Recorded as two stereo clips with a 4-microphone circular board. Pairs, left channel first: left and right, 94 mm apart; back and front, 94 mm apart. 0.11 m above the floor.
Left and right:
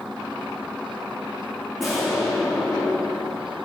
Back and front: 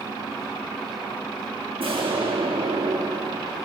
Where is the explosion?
Straight ahead, 3 m.